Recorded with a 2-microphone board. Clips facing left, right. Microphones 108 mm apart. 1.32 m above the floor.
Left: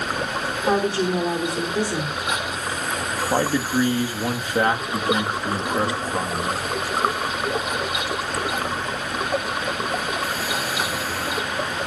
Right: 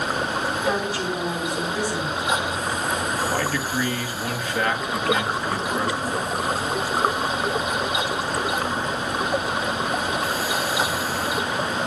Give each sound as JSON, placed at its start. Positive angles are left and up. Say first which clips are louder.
{"t": 0.7, "sound": "a woman speaking", "louder": "left 8 dB", "side_deg": 30, "distance_m": 4.0}
{"t": 3.3, "sound": "a man speaking", "louder": "left 4 dB", "side_deg": 25, "distance_m": 2.0}